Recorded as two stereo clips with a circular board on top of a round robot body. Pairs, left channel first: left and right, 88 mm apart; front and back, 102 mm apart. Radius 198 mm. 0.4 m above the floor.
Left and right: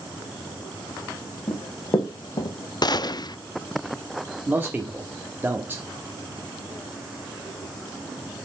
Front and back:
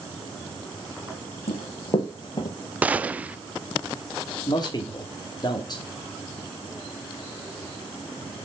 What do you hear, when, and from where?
1.5 s running footsteps: 30° left, 1.3 m; by 2.5 s 50° left, 1.5 m
2.8 s a gunshot: 105° left, 0.7 m
4.5 s a man speaking: 30° right, 1.4 m